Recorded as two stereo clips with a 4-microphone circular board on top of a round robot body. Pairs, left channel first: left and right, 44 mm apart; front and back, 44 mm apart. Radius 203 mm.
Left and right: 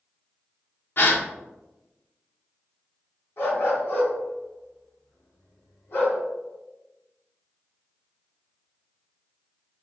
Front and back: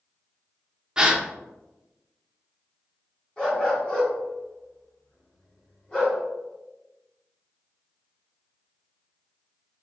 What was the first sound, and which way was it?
A gasp, 110° left.